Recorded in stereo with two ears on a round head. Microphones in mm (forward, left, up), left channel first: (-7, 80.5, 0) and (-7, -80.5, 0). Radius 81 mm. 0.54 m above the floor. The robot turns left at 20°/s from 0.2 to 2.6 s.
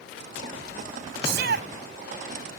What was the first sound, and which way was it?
A shout, 60° right (ahead or behind).